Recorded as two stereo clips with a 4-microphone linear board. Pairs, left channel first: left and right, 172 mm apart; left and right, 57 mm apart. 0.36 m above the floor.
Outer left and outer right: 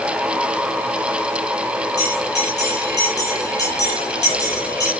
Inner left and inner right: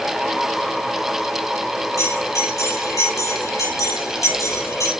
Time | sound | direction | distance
2.0 | a bell | 85° left | 10 m